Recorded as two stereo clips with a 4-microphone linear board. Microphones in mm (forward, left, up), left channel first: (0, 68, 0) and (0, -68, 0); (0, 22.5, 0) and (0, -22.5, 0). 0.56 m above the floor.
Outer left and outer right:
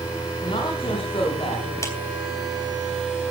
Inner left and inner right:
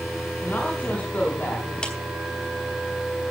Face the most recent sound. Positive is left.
turn(degrees=20)  # may be behind; listen again after turning